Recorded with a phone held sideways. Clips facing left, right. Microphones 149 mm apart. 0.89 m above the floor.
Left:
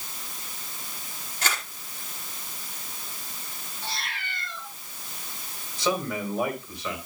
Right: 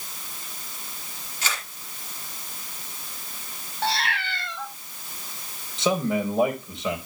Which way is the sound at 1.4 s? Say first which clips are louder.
Left 2 dB; 50° left (ahead or behind).